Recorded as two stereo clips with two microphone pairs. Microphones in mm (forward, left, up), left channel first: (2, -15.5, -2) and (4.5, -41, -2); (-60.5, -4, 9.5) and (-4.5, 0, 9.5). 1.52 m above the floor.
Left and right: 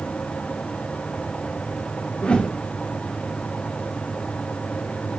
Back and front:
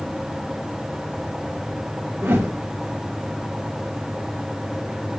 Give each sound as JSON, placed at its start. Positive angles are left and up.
{"t": 2.2, "sound": "a whoosh", "azimuth_deg": 55, "distance_m": 2.0}